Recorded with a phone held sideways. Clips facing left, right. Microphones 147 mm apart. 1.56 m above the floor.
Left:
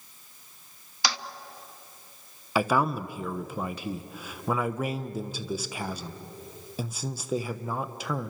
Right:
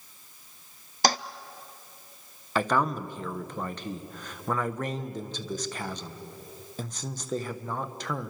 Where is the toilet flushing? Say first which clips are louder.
Right 7 dB; 45° right (ahead or behind), 0.5 m.